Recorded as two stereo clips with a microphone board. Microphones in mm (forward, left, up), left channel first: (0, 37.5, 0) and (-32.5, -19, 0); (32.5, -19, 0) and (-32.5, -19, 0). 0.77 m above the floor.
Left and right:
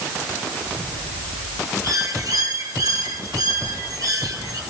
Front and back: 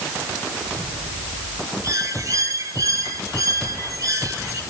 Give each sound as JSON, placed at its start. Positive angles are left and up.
{"t": 1.8, "sound": "a bird", "azimuth_deg": -145, "distance_m": 4.5}